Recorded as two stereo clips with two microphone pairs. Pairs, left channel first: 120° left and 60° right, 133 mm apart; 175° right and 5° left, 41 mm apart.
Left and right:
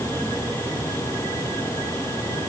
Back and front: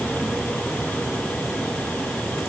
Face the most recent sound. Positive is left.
No sound to turn to.